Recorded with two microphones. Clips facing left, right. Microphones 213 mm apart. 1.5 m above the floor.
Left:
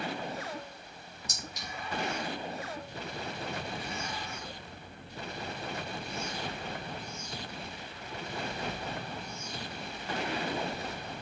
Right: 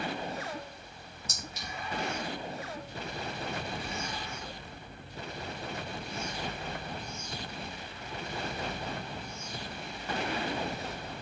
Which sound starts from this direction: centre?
A clink, at 1.3 s.